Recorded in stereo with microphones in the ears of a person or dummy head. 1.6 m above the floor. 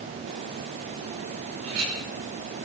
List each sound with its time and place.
1.6 s a clink: 85° right, 4.5 m